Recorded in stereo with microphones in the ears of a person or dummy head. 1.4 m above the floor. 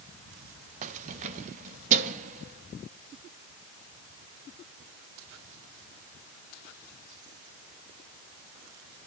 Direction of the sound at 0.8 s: 35° right (ahead or behind).